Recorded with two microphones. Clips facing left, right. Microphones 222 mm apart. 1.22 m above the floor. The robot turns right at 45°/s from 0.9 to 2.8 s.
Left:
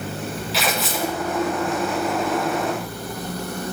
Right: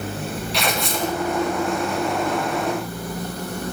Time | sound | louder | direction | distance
0.5 | tearing paper | even | centre (ahead or behind) | 0.6 m